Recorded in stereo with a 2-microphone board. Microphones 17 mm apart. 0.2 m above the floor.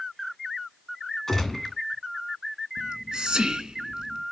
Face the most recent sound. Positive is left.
turn(degrees=-50)  # may be behind; listen again after turning